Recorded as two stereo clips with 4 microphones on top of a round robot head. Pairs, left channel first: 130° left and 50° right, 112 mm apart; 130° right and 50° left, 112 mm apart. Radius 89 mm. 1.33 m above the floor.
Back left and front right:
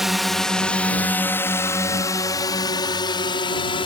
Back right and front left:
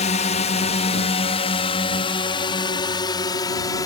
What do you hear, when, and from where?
0.0 s a drone: 140° right; by 3.9 s 175° left